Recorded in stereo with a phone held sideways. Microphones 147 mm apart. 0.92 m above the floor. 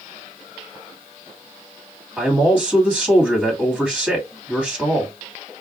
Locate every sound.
2.2 s a man speaking: 10° right (ahead or behind), 2 m